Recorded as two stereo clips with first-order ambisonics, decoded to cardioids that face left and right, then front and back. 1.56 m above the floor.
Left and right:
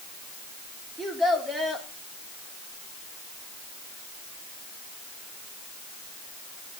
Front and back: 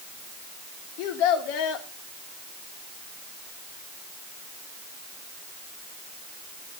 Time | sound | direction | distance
1.0 | a child speaking | 10° right | 3.5 m